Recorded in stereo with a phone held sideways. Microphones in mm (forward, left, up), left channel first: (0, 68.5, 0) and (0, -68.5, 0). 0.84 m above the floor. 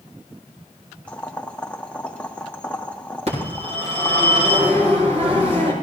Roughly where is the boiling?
Centre.